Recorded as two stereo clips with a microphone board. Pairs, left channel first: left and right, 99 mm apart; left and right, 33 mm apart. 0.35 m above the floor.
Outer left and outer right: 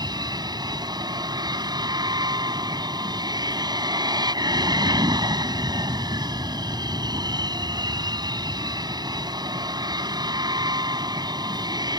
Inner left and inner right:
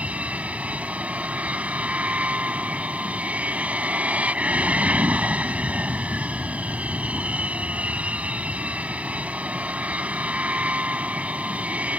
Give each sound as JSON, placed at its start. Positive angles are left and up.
{"t": 0.0, "sound": "an aircraft", "side_deg": -45}